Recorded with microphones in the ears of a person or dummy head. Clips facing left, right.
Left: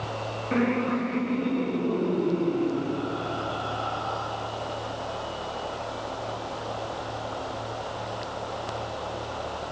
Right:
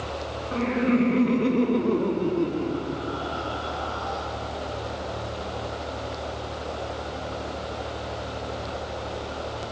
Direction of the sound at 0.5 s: 30° left (ahead or behind).